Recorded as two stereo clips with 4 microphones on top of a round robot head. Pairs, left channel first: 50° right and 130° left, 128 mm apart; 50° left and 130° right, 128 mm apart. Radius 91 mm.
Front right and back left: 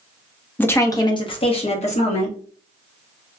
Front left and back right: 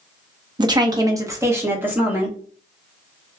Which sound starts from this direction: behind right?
A woman speaking, at 0.6 s.